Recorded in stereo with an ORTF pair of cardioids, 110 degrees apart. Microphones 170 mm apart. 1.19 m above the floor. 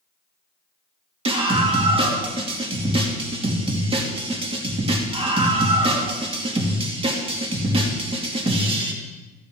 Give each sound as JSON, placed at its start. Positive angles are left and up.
{"t": 1.2, "sound": "a scream", "azimuth_deg": -35, "distance_m": 2.5}